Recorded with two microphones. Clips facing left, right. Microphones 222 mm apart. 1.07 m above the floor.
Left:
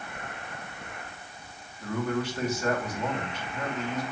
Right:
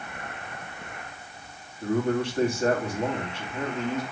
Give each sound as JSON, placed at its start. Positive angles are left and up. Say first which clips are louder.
{"t": 1.8, "sound": "a man speaking", "louder": "right 5 dB", "side_deg": -25, "distance_m": 2.5}